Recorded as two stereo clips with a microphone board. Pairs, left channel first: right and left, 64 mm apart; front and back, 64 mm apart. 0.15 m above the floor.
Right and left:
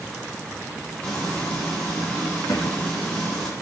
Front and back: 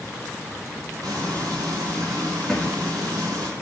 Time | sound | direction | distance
1.0 | frying | 165° right | 7.5 m
2.5 | a thud | 85° right | 4.5 m